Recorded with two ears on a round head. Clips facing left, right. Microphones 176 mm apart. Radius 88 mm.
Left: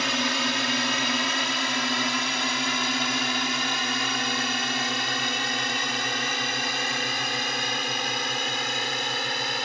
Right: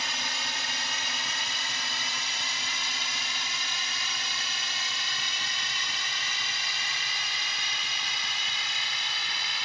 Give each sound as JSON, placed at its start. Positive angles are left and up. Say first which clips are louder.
{"t": 0.0, "sound": "a drone", "louder": "left 12 dB", "side_deg": 55}